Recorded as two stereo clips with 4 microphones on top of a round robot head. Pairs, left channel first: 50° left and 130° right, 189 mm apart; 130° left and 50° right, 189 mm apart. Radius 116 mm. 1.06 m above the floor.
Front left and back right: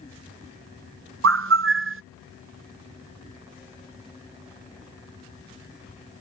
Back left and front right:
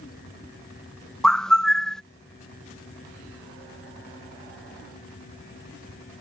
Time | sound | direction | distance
1.2 | a bird | 145° right | ?